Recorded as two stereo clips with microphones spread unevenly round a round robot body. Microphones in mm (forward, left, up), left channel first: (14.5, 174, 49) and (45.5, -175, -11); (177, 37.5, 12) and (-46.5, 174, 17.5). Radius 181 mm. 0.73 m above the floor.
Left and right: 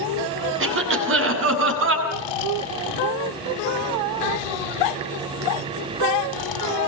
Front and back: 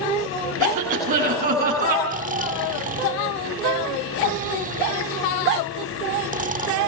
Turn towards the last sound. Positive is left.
turn(degrees=85)